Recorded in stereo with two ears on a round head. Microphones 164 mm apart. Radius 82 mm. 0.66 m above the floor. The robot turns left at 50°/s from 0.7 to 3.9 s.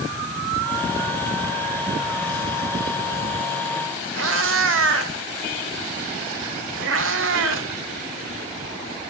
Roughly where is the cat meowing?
Right.